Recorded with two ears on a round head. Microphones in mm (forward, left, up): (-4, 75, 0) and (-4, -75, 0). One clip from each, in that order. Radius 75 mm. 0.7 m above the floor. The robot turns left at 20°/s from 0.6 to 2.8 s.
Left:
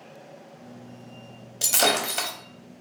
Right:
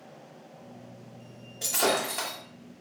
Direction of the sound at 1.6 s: 75° left (ahead or behind).